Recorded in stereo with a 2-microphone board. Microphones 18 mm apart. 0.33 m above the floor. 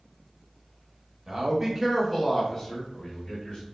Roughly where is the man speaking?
Right.